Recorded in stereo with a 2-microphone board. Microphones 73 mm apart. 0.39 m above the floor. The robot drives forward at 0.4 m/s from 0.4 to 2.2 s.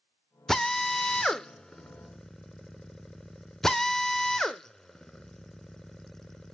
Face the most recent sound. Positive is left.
turn(degrees=5)  # may be behind; listen again after turning